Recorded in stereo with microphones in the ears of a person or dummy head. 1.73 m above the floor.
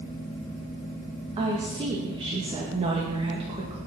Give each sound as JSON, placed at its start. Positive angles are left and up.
{"t": 1.4, "sound": "a woman speaking", "side_deg": -30, "distance_m": 2.5}